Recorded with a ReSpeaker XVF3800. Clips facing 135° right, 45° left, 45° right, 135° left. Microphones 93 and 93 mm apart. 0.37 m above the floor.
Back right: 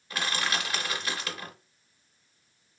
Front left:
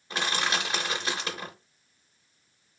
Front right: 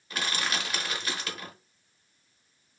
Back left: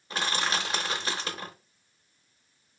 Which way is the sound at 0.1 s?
95° left.